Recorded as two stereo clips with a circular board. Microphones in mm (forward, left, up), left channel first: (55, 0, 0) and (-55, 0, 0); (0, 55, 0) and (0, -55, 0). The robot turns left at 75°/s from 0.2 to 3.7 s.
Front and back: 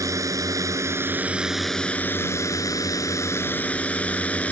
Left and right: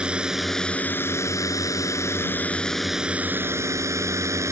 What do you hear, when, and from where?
0.0 s a drone: 160° right; by 4.5 s 65° right